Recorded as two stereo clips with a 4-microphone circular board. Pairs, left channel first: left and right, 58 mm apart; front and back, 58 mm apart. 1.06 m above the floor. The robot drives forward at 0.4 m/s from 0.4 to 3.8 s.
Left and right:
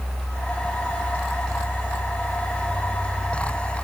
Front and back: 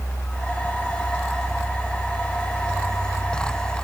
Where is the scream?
I don't hear a scream.